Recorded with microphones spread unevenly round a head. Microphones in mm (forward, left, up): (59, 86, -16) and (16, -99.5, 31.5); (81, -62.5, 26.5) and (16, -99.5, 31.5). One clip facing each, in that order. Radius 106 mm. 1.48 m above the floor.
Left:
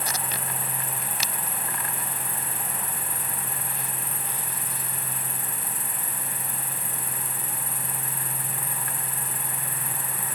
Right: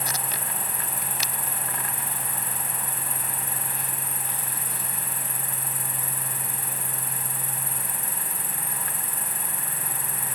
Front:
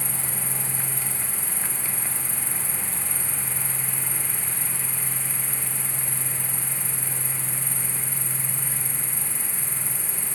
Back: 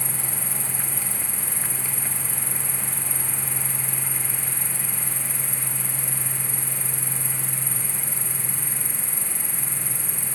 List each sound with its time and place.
0.0 s an insect: 140° right, 0.9 m